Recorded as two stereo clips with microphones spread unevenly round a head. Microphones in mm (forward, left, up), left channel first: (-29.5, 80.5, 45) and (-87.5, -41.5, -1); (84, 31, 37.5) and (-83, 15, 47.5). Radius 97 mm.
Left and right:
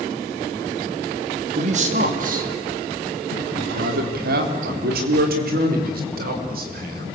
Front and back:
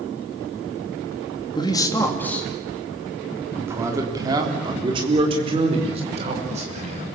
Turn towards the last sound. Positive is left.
turn(degrees=-120)